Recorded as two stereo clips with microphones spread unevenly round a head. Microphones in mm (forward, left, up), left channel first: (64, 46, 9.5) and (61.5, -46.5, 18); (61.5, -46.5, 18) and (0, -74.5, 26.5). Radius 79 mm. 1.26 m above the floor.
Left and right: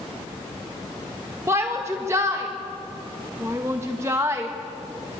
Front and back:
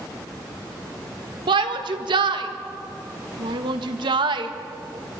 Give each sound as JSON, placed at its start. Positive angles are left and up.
{"t": 1.5, "sound": "a shout", "azimuth_deg": -165, "distance_m": 1.8}